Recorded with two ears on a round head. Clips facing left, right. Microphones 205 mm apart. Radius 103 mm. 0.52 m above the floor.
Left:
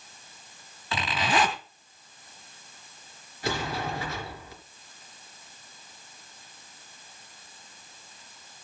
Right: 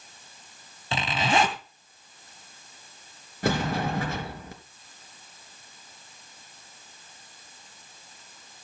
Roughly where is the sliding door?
Right.